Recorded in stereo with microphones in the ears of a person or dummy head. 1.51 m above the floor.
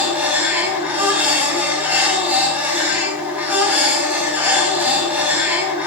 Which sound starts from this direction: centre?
A machine running, at 0.0 s.